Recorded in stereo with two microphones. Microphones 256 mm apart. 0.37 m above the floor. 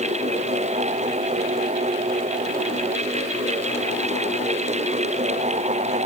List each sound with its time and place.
Only background noise.